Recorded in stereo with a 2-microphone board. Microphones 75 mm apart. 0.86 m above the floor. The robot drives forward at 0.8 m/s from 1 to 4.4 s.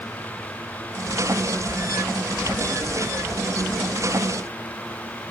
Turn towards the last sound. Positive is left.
No sound to turn to.